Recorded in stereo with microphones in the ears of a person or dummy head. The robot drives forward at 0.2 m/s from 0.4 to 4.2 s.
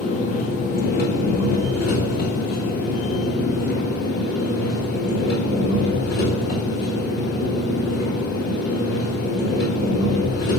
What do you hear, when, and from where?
0.0 s an engine running: 40° left (ahead or behind), 1.6 m; by 10.6 s 45° left (ahead or behind), 1.4 m